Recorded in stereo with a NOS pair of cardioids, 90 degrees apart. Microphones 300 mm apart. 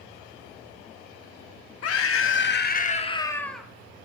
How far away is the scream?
About 2.0 m.